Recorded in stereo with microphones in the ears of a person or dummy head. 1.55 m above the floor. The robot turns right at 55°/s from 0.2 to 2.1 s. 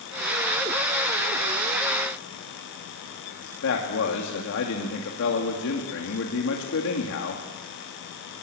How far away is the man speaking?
About 2.5 m.